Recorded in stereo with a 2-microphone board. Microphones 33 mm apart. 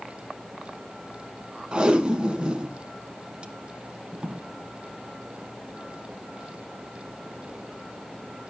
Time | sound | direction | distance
1.7 | tape being pulled | 30° right (ahead or behind) | 1.6 m